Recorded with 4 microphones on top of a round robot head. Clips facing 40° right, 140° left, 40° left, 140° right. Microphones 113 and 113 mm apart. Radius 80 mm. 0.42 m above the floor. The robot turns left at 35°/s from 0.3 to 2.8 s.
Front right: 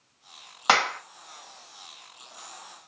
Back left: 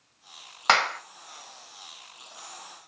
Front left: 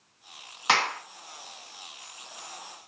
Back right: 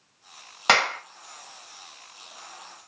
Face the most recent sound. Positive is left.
turn(degrees=165)